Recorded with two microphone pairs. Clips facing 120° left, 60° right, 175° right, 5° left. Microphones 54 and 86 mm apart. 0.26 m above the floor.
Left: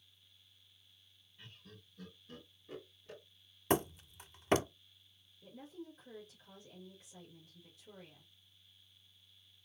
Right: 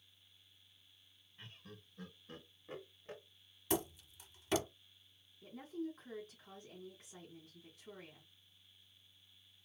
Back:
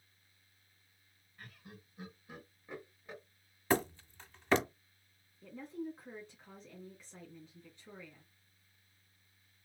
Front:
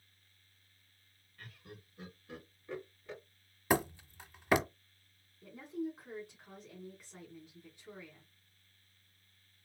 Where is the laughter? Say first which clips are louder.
Right 2 dB, front 1 dB; 95° right, 2.5 m.